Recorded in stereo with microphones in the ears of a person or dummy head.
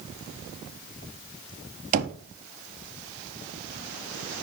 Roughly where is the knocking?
Right.